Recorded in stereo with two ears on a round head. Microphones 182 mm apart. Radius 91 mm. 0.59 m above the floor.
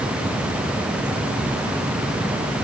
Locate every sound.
Only background noise.